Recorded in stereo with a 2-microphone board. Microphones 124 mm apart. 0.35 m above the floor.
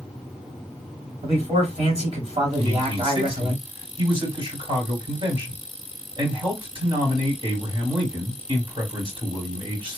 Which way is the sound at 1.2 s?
60° right (ahead or behind).